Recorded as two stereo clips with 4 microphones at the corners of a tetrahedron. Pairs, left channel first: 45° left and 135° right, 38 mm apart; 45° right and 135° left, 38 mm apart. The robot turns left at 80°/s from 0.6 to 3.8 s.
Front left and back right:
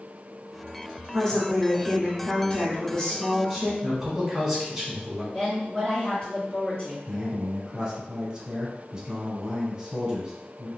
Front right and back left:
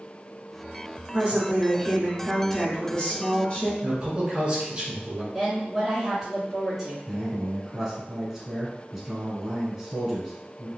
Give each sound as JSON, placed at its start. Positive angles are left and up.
{"t": 1.1, "sound": "a woman speaking", "azimuth_deg": 150, "distance_m": 1.8}
{"t": 3.8, "sound": "a man speaking", "azimuth_deg": 145, "distance_m": 1.2}
{"t": 5.3, "sound": "a woman speaking", "azimuth_deg": 60, "distance_m": 1.8}
{"t": 7.1, "sound": "a man speaking", "azimuth_deg": -155, "distance_m": 1.2}